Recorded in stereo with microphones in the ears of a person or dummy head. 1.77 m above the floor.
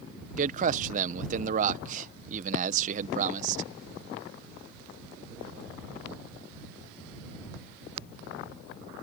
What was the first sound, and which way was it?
A man speaking, 45° right (ahead or behind).